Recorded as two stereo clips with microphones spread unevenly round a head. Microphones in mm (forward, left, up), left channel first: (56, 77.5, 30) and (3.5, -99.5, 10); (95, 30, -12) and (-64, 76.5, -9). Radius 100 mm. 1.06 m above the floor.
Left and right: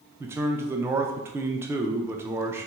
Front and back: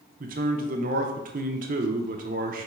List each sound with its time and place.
0.2 s a man speaking: 175° right, 0.5 m